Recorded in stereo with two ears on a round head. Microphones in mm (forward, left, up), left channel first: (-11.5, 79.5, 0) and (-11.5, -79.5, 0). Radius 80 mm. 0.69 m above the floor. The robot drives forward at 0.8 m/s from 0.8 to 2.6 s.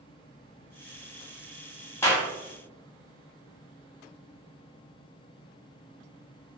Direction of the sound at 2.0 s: 15° left (ahead or behind).